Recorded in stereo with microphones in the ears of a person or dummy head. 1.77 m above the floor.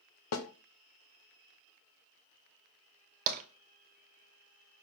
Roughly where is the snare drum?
Left.